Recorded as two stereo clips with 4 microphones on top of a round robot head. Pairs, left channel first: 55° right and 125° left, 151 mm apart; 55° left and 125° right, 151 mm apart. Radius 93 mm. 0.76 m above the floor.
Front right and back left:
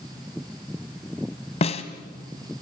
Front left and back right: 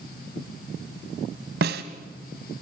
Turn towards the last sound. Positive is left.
turn(degrees=-105)